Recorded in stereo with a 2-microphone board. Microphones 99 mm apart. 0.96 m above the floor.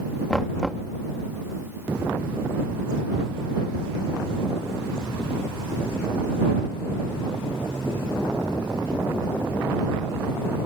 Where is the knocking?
5° left (ahead or behind).